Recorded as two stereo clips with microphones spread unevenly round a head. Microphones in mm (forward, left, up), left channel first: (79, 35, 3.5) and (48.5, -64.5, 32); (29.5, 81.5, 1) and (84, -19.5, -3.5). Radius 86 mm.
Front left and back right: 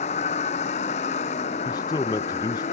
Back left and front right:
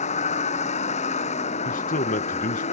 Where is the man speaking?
135° left.